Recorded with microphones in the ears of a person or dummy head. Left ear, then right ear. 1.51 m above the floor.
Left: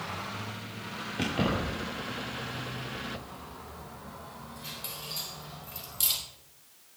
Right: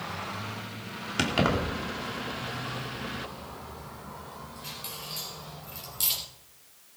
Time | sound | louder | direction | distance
1.2 | keys jangling | right 4 dB | 75° right (ahead or behind) | 2.5 m